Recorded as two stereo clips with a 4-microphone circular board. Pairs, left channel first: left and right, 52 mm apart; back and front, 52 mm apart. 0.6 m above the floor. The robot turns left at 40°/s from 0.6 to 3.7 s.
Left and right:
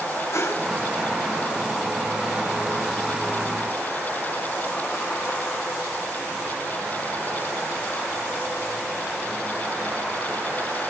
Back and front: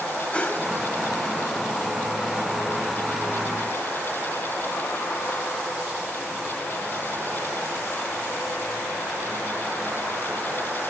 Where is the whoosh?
115° left, 2.5 m; by 0.7 s 110° left, 2.5 m.